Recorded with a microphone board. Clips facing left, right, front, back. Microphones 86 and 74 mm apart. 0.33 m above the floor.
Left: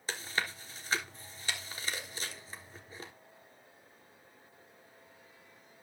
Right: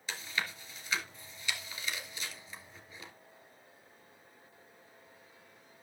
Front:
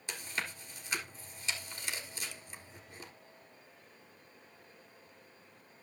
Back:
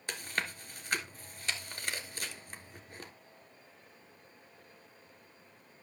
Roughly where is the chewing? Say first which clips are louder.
Left 2 dB, back 3 dB; behind left.